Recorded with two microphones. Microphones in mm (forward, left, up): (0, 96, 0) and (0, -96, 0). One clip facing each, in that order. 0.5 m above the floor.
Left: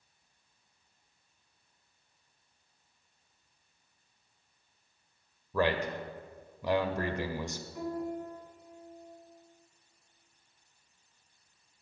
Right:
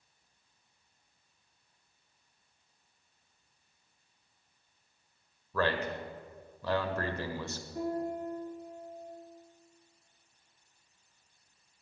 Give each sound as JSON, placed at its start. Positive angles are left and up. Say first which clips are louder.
{"t": 5.5, "sound": "a man speaking", "louder": "left 2 dB", "side_deg": 15, "distance_m": 1.5}
{"t": 7.8, "sound": "a piano", "louder": "right 2 dB", "side_deg": -40, "distance_m": 3.0}